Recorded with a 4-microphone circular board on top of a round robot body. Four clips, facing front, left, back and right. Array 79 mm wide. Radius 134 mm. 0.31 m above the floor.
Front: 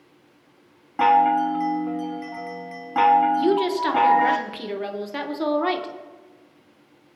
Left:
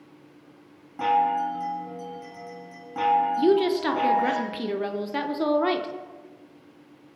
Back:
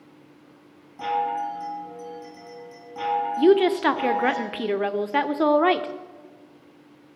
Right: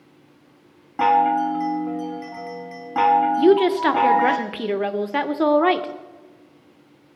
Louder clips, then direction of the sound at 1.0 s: Right 5 dB, front 8 dB; 40° right.